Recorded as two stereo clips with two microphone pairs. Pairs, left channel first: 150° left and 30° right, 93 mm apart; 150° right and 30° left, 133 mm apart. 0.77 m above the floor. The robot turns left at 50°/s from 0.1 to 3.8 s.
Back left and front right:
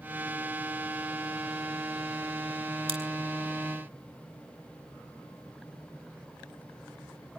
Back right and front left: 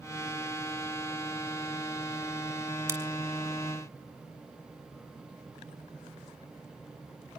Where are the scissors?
35° right, 3 m; by 3.0 s 40° right, 3 m.